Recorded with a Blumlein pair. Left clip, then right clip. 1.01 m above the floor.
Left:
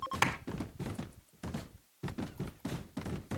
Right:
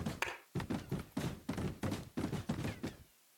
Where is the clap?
65° left, 1.7 m.